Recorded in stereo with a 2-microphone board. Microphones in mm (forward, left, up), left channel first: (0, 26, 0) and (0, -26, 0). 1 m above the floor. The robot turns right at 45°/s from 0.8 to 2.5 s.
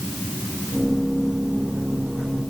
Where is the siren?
No siren in this recording.